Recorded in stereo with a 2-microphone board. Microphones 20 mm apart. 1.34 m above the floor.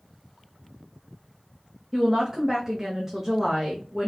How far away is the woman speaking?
About 0.6 m.